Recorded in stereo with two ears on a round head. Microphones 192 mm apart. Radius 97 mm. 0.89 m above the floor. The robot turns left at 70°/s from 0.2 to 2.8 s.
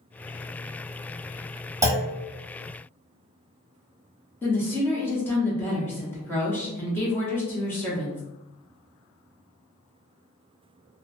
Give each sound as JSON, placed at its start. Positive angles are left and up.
{"t": 1.8, "sound": "a clunk", "side_deg": -15, "distance_m": 0.7}
{"t": 4.4, "sound": "a woman speaking", "side_deg": 10, "distance_m": 0.7}